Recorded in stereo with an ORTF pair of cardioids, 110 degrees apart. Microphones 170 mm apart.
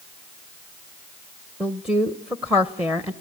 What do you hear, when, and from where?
1.6 s a woman speaking: 5° right, 0.9 m